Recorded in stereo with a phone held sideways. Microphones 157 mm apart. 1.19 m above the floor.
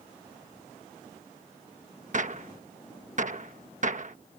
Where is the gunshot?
50° right (ahead or behind).